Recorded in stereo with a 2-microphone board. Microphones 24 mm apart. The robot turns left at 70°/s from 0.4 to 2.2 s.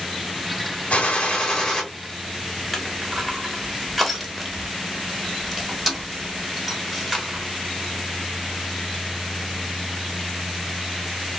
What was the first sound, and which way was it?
A gunshot, 70° left.